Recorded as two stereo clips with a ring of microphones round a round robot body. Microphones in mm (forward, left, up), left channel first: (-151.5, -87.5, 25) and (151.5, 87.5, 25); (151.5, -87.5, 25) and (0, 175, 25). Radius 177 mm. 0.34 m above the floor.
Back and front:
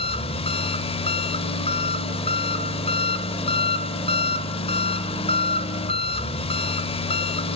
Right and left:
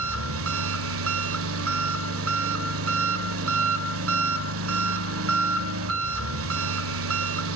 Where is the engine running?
140° left, 1.4 m.